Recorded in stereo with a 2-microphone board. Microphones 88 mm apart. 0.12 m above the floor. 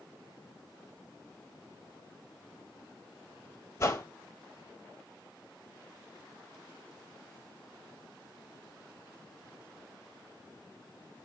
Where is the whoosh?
30° left (ahead or behind), 1.1 m.